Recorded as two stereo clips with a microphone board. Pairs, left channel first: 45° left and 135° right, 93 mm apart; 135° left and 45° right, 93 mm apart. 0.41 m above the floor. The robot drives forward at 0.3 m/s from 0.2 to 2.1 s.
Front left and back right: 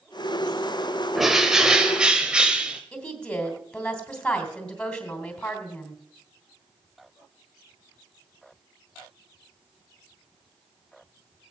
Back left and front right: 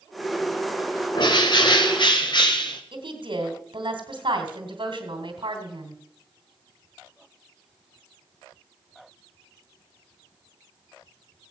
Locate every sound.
1.1 s a bird: 140° left, 1.4 m; by 2.8 s 145° left, 1.6 m
2.9 s a woman speaking: 35° right, 3 m